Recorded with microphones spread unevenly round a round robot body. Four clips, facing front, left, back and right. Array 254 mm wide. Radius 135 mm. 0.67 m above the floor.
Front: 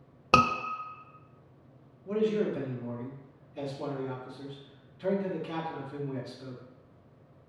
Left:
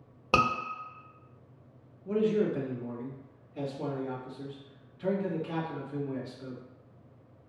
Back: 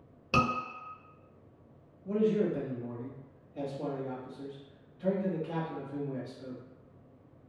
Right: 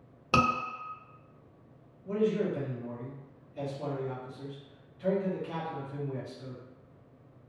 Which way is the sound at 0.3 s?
15° left.